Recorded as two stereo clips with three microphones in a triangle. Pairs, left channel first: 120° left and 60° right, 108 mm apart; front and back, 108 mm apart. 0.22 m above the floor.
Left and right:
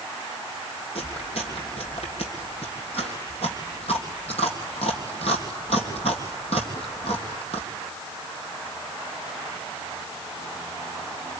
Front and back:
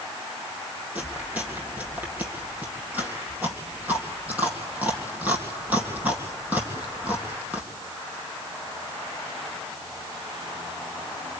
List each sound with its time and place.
0.9 s chewing: 105° left, 3.5 m